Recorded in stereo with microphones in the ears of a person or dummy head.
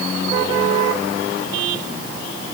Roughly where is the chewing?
I don't hear chewing.